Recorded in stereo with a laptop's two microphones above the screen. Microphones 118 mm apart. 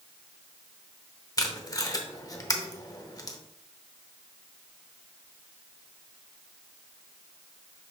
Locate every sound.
1.4 s tape being pulled: 30° left (ahead or behind), 0.8 m